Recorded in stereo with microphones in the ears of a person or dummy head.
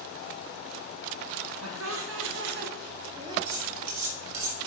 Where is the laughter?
85° right, 1.9 m; by 3.4 s 20° right (ahead or behind), 1.0 m.